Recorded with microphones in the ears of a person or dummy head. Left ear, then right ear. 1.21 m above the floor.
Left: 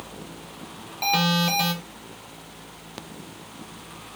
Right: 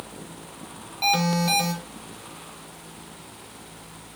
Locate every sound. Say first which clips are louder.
1.0 s an alarm: even; centre (ahead or behind), 4 m